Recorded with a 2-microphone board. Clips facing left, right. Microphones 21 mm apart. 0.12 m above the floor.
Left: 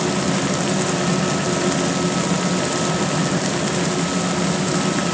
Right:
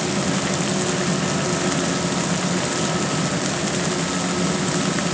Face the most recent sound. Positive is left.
No sound to turn to.